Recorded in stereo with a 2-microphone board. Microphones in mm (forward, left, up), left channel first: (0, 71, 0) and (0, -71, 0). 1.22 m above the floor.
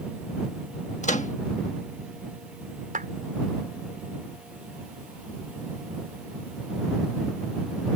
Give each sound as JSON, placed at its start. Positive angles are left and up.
{"t": 1.0, "sound": "a microwave", "side_deg": 60}
{"t": 2.9, "sound": "a clap", "side_deg": -75}